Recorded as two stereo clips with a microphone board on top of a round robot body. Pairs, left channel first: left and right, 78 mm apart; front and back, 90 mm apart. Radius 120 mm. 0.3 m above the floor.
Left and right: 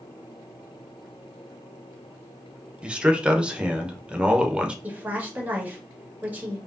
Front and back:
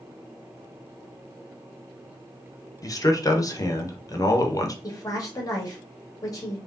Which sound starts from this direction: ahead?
A man speaking, at 2.8 s.